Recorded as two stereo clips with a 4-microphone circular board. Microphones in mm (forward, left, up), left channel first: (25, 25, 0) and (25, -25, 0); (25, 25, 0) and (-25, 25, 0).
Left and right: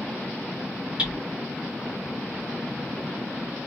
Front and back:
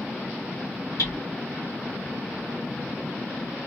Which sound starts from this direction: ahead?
Hammering, at 1.0 s.